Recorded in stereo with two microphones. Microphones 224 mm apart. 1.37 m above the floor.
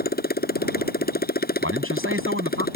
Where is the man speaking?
75° right (ahead or behind).